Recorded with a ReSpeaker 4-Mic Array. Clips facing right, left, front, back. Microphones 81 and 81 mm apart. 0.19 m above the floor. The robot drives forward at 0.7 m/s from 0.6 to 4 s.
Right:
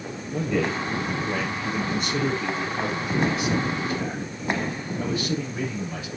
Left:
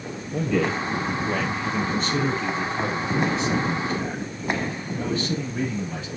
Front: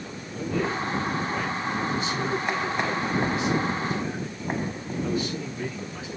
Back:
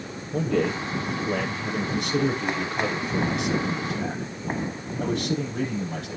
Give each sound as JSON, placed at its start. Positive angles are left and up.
{"t": 0.3, "sound": "a man speaking", "azimuth_deg": -170, "distance_m": 4.5}